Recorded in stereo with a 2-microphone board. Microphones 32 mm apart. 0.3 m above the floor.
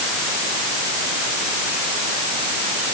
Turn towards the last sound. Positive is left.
No sound to turn to.